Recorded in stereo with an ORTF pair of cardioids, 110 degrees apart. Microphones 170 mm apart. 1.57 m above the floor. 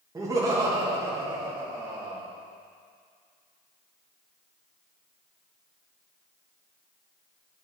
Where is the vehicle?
No vehicle in this recording.